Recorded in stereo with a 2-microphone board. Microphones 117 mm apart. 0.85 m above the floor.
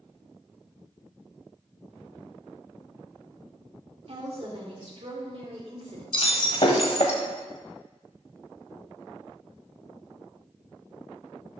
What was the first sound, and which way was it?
A woman speaking, 55° right (ahead or behind).